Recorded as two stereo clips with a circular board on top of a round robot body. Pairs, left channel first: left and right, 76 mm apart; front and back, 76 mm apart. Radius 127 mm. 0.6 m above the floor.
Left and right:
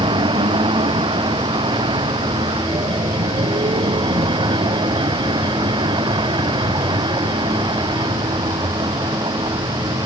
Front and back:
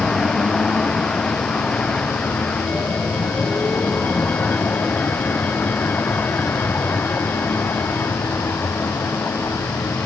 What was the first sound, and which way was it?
A vehicle, 85° right.